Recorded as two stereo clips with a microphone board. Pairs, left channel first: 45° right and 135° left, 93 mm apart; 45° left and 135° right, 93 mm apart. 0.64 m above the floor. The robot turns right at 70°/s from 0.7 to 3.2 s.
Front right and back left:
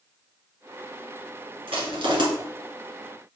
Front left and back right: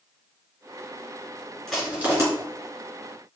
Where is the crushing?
130° left, 1.9 m; by 2.2 s 170° left, 1.9 m.